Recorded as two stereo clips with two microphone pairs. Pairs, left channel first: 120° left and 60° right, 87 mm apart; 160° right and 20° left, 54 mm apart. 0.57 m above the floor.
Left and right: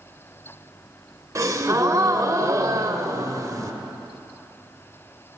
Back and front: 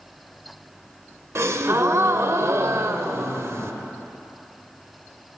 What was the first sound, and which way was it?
A gasp, 10° right.